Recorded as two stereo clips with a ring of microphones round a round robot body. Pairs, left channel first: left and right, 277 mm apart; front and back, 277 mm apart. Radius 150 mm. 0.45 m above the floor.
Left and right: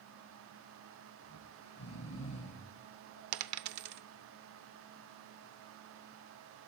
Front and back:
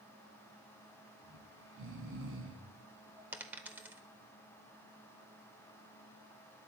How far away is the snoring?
About 3 m.